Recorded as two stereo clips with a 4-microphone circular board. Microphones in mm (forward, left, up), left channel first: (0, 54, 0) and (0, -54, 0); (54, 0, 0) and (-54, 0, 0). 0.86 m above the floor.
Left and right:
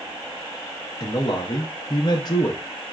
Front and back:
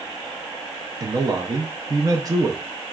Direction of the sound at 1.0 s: 130° left.